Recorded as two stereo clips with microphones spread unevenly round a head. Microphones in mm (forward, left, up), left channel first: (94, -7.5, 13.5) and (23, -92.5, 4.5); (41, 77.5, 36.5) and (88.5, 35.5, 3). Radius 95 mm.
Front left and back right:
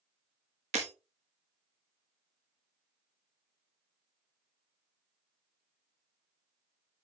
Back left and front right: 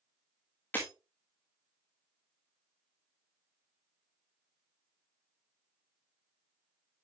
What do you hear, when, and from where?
0.7 s breaking glass: 170° right, 1.3 m